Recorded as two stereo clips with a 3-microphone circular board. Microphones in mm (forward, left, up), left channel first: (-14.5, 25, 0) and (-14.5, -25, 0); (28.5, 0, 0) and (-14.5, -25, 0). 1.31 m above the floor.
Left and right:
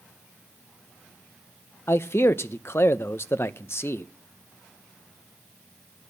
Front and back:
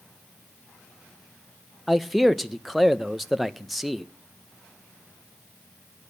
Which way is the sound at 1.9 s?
120° left.